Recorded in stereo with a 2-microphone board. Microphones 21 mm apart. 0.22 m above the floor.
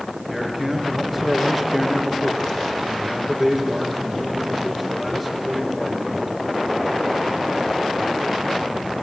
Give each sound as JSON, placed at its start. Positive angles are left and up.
{"t": 0.3, "sound": "a man speaking", "side_deg": 5, "distance_m": 3.5}